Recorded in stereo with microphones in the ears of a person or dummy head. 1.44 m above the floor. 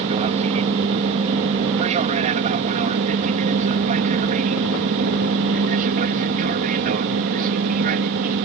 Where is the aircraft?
30° right (ahead or behind); by 8.4 s 45° right (ahead or behind).